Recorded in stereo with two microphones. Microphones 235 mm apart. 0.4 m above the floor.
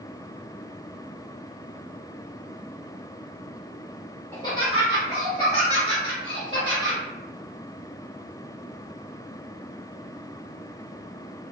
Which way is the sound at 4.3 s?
10° left (ahead or behind).